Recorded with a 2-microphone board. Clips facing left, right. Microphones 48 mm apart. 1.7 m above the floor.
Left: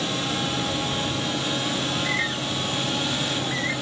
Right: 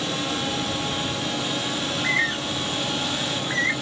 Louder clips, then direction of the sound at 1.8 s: Right 2 dB; 55° right (ahead or behind).